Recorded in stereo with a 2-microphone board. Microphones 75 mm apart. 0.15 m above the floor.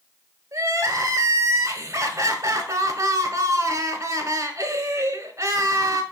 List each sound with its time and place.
0.5 s crying: 45° right (ahead or behind), 0.9 m